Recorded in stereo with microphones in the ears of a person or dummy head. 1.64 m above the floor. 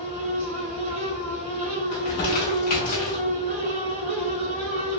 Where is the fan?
45° right (ahead or behind), 0.8 m.